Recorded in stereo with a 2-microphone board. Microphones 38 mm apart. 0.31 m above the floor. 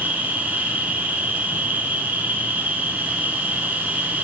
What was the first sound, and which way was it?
An insect, 50° right (ahead or behind).